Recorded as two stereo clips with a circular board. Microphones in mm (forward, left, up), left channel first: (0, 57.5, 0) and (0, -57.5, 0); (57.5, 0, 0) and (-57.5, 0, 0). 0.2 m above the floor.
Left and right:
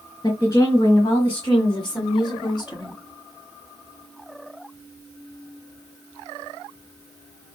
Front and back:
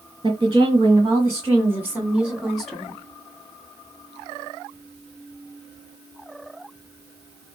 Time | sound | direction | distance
0.2 | a woman speaking | 135° left | 3 m